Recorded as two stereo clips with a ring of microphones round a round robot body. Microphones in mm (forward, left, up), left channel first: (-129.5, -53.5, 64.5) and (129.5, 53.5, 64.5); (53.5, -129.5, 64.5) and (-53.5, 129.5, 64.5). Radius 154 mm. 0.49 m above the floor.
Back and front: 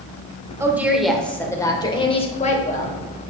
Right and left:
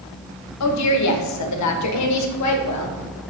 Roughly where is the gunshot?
I don't hear a gunshot.